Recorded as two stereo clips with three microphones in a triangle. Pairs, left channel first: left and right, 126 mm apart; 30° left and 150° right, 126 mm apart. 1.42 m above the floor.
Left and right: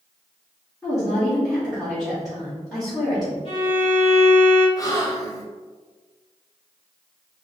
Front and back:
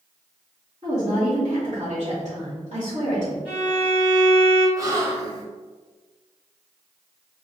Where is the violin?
130° left, 1.3 m.